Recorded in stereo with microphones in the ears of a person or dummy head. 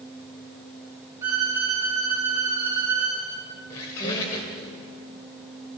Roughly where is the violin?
Centre.